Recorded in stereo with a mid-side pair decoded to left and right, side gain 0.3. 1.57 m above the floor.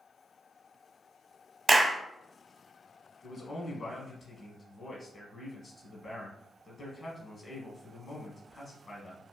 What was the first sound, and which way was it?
A clap, 40° right.